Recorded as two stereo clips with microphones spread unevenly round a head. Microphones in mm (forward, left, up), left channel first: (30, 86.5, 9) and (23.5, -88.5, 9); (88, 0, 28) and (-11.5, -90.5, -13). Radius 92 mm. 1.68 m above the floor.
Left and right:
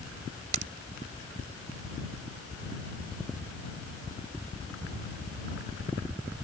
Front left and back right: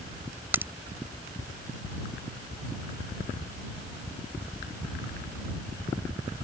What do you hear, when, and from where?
0.5 s a crack: 50° right